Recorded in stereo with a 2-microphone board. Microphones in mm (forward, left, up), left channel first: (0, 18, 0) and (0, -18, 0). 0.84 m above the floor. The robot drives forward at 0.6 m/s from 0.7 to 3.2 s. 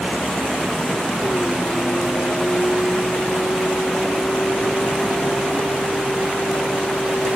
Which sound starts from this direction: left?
A vehicle, at 0.0 s.